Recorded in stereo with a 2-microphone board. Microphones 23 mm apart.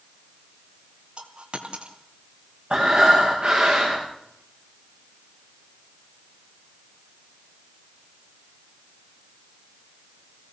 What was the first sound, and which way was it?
A dropped coin, 45° right (ahead or behind).